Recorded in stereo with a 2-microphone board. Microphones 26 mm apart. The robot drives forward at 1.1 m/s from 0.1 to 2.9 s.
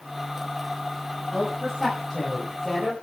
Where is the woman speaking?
5° right (ahead or behind), 6.5 m.